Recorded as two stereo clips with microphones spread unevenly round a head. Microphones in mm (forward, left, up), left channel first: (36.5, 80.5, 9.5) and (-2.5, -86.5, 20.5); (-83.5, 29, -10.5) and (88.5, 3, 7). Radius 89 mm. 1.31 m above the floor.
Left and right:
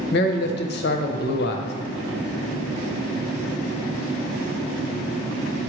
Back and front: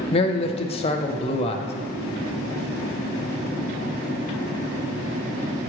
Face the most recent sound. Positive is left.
turn(degrees=115)